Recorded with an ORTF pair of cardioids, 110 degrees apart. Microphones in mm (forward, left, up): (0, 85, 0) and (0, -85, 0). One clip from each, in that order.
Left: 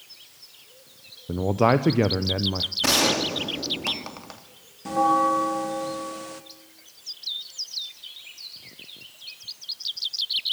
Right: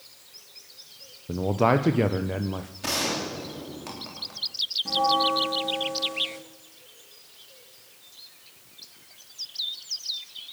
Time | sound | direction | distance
1.3 | a man speaking | 10° left | 0.8 m
2.8 | a gunshot | 50° left | 3 m
4.8 | a bell | 35° left | 1.6 m